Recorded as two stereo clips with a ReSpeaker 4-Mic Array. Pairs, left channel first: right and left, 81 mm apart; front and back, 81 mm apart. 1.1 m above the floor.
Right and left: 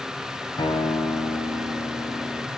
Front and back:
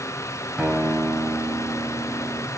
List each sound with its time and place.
0.6 s a guitar: 105° right, 2.0 m